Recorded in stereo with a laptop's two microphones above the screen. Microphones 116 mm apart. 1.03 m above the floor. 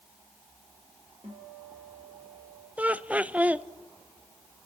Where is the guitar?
65° right (ahead or behind), 4.5 m.